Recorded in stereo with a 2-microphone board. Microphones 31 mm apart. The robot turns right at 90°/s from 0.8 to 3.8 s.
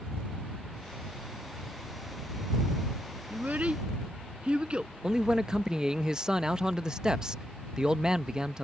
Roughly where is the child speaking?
Right.